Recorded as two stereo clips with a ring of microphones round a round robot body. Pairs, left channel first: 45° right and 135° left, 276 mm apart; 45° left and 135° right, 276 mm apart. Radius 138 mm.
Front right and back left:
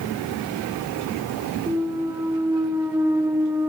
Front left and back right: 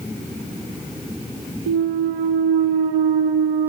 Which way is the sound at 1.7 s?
145° right.